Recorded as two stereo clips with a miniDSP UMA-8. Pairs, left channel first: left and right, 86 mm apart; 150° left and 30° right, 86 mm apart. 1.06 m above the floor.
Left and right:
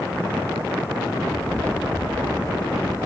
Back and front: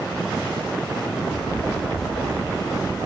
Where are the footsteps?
135° left, 1.5 m; by 3.0 s 175° right, 2 m.